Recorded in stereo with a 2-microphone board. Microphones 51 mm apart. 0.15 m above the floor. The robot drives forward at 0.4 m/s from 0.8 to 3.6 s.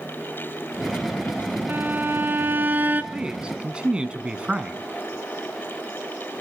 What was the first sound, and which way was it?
A violin, 40° right (ahead or behind).